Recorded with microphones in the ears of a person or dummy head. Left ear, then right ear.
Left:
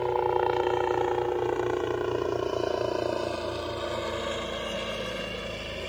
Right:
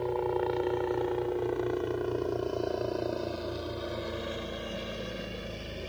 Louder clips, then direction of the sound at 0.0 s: Left 5 dB; 40° left (ahead or behind).